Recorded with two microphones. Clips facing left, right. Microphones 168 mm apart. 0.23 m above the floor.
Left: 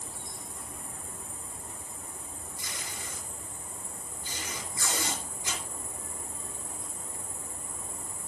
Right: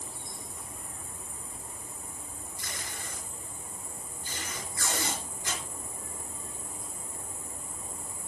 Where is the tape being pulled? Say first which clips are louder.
Right 1 dB; 15° left (ahead or behind), 3.5 m.